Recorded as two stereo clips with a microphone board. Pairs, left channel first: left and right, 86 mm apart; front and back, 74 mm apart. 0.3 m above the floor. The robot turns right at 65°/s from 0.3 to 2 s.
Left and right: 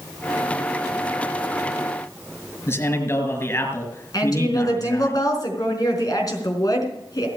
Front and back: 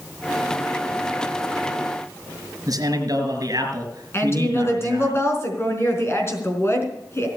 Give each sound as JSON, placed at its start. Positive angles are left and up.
{"t": 2.7, "sound": "a man speaking", "azimuth_deg": 145, "distance_m": 3.5}
{"t": 4.1, "sound": "a woman speaking", "azimuth_deg": 50, "distance_m": 4.0}